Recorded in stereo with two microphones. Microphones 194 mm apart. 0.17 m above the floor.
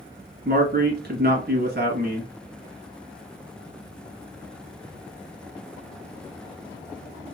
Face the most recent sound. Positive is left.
turn(degrees=-50)  # may be behind; listen again after turning